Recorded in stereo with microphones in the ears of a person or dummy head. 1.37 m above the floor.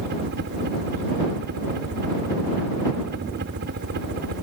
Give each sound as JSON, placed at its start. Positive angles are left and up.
{"t": 0.0, "sound": "a helicopter", "side_deg": -50}